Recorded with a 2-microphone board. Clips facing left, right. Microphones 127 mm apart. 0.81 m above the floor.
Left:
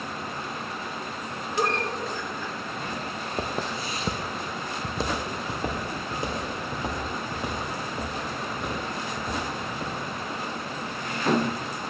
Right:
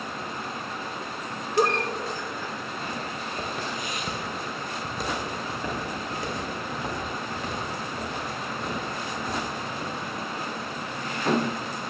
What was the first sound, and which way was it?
A giggle, 40° right (ahead or behind).